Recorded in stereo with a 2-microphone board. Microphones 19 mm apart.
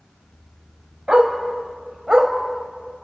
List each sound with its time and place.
1.1 s a dog barking: 40° right (ahead or behind), 3.5 m; by 2.3 s 35° right (ahead or behind), 3 m